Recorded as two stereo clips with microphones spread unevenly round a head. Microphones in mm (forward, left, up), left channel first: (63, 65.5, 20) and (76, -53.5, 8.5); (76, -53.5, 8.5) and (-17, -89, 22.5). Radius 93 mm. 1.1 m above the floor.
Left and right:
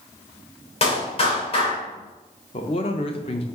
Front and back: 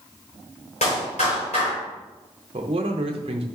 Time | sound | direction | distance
0.8 | a clap | 60° left | 3.5 m
2.5 | a man speaking | 150° left | 0.6 m